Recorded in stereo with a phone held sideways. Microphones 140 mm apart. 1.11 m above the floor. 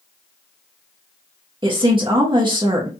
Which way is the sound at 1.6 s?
35° right (ahead or behind).